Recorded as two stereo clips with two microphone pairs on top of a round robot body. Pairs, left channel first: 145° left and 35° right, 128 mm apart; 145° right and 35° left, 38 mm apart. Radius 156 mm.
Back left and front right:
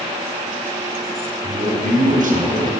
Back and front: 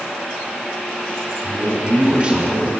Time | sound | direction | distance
1.4 | a man speaking | 20° right | 4.5 m